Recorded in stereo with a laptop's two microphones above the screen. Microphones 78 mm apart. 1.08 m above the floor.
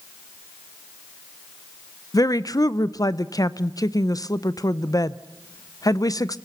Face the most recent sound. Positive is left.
turn(degrees=50)  # may be behind; listen again after turning